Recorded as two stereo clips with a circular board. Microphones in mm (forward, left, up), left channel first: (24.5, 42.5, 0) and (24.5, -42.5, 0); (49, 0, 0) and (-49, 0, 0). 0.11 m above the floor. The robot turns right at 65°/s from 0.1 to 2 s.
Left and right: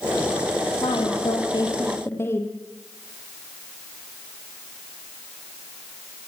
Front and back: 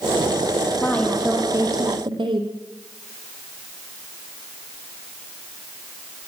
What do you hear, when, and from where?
0.8 s a woman speaking: 70° left, 4.5 m; by 2.5 s 150° left, 4.5 m